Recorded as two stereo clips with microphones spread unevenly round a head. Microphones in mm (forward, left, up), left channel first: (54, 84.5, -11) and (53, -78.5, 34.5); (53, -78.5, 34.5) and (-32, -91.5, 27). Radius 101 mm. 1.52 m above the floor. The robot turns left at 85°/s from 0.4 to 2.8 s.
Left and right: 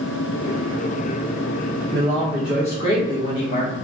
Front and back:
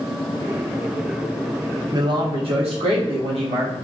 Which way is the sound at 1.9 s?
125° right.